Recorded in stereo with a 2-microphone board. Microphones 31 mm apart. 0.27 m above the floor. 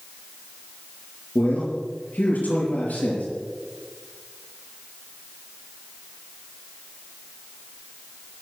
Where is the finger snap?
I don't hear a finger snap.